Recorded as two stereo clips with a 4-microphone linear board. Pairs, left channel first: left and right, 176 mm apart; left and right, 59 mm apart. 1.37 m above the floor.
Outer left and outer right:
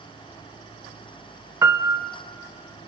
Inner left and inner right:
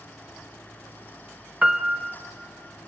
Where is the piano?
15° right (ahead or behind), 0.9 m.